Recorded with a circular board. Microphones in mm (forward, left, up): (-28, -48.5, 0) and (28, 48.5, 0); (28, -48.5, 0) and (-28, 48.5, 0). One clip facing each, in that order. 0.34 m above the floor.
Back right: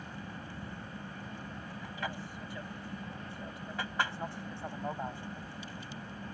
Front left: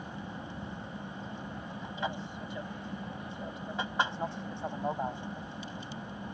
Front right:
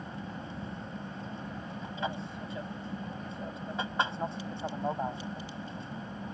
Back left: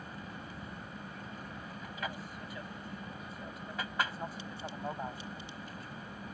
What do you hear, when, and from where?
0.0 s an aircraft: 5° right